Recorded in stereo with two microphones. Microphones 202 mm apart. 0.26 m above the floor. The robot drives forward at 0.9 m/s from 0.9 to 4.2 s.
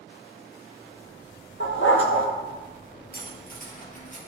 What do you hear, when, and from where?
1.6 s a dog barking: 70° left (ahead or behind), 1.7 m; by 2.3 s 90° left, 1.6 m
3.1 s cutlery clinking: 50° left (ahead or behind), 3 m; by 4.2 s 40° left (ahead or behind), 3.5 m